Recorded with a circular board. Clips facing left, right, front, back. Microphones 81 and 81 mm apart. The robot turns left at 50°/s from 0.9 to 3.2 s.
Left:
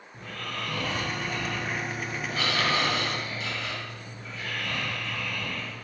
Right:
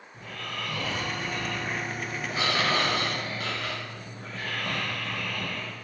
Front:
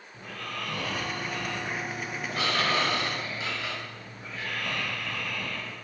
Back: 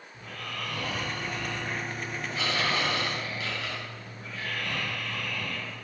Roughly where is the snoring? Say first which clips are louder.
Left 1 dB, front 1 dB; ahead left.